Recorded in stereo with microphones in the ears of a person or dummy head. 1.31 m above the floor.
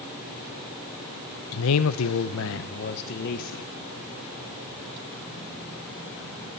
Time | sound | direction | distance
1.5 | a man speaking | 70° left (ahead or behind) | 0.7 m